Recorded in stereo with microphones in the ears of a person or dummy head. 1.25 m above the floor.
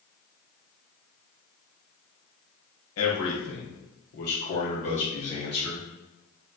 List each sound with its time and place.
3.0 s a man speaking: 70° left (ahead or behind), 1.5 m; by 5.9 s 20° left (ahead or behind), 1.6 m